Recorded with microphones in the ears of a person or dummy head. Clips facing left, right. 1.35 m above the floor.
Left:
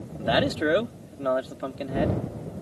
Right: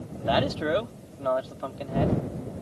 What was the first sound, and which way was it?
A man speaking, 30° left (ahead or behind).